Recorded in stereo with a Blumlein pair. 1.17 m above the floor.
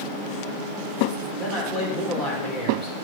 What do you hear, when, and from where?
1.4 s a man speaking: straight ahead, 3.5 m